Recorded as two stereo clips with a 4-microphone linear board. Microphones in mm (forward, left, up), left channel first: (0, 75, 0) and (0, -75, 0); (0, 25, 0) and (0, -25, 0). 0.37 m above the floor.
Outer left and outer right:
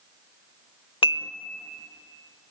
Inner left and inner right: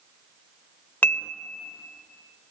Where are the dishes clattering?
35° left (ahead or behind), 0.8 m.